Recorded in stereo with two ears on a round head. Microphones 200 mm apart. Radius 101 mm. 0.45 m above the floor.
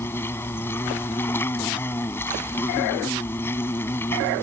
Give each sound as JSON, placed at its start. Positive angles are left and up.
{"t": 0.0, "sound": "an insect", "side_deg": 10}